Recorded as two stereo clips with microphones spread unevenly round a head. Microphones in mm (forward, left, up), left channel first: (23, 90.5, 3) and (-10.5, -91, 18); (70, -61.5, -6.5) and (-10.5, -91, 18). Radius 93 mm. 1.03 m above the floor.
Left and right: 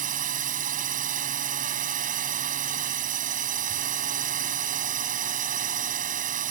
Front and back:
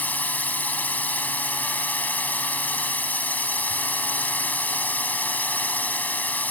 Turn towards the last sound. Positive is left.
turn(degrees=-50)